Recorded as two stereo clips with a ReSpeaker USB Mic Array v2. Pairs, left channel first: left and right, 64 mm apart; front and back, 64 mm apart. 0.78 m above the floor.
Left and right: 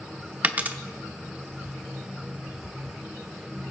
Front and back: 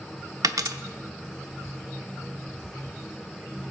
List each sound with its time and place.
0.4 s a dropped coin: 155° right, 0.7 m